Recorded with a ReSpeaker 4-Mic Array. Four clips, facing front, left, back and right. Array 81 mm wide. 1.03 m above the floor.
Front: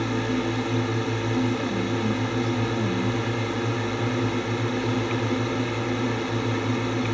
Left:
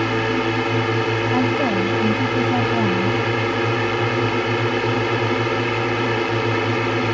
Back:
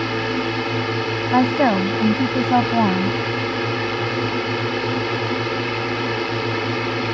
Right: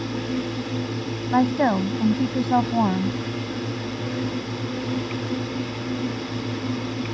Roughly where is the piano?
No piano in this recording.